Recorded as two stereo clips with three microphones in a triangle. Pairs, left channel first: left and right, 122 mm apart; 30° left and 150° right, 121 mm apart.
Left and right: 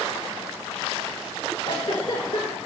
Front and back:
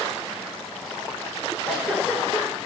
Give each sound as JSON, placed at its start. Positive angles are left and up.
{"t": 1.6, "sound": "a giggle", "azimuth_deg": 120, "distance_m": 3.0}